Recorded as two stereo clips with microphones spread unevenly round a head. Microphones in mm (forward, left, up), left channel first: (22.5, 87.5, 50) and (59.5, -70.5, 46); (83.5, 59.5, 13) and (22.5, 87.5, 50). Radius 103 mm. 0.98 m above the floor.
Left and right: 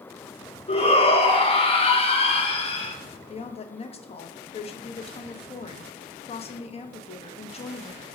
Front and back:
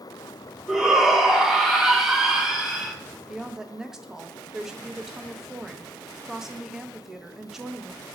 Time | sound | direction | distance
0.7 | a shout | 55° left | 1.0 m
3.3 | a woman speaking | 55° left | 0.6 m